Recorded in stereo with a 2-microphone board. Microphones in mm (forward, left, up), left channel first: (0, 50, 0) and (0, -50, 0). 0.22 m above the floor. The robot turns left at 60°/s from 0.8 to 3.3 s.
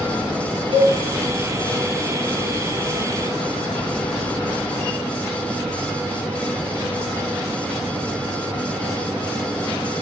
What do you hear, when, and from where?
0.7 s a cowbell: 60° right (ahead or behind), 1.2 m